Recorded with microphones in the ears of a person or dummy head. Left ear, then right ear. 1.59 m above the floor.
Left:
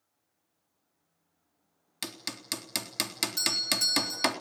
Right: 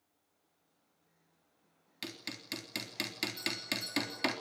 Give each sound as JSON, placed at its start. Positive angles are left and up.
{"t": 2.0, "sound": "hammering", "side_deg": 30, "distance_m": 3.5}
{"t": 3.4, "sound": "a doorbell", "side_deg": 50, "distance_m": 2.0}